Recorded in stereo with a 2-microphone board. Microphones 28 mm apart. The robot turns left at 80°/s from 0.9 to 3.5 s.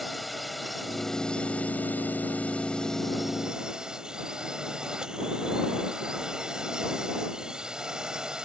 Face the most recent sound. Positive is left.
turn(degrees=-25)